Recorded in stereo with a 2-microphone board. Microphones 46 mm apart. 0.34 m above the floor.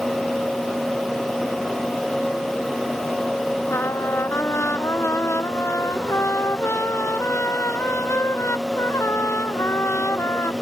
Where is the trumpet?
75° left (ahead or behind).